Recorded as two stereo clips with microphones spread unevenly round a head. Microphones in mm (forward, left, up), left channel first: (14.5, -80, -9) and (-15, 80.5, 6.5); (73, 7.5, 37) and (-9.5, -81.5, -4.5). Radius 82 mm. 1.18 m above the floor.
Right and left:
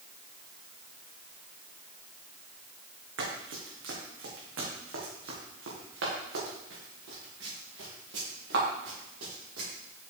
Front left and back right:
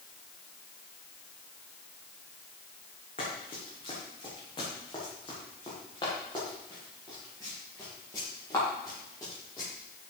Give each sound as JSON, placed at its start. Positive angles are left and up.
{"t": 3.2, "sound": "running footsteps", "azimuth_deg": 105, "distance_m": 5.0}